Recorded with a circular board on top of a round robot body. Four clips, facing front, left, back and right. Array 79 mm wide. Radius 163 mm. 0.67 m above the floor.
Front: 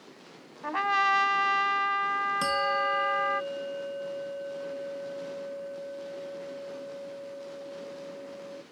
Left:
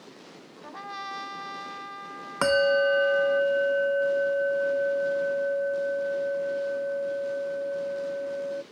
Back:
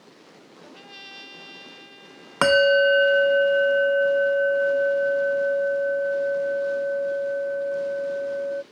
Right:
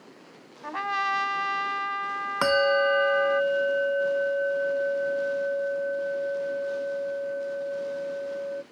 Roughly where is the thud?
No thud in this recording.